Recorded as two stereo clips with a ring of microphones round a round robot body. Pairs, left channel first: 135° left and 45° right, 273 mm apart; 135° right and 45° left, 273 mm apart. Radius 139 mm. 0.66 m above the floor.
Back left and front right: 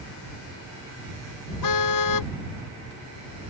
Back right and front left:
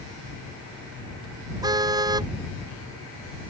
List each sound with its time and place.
1.6 s a car horn: 120° left